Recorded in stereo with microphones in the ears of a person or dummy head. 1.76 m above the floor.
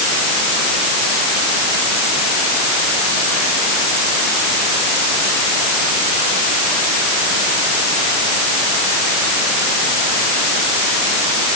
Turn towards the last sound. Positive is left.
No sound to turn to.